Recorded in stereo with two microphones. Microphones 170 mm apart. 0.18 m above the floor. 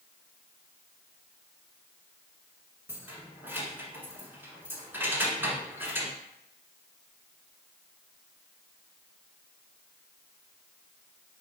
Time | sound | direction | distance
2.9 | keys jangling | 15° right (ahead or behind) | 1.1 m